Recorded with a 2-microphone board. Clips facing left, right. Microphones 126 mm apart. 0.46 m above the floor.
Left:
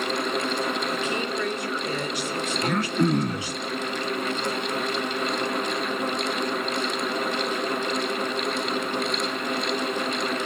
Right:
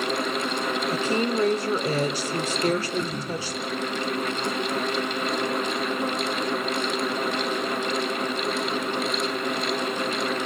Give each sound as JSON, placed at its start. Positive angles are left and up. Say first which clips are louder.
{"t": 0.9, "sound": "a woman speaking", "louder": "right 3 dB", "side_deg": -35, "distance_m": 1.6}
{"t": 2.6, "sound": "throat clearing", "louder": "left 3 dB", "side_deg": 65, "distance_m": 0.6}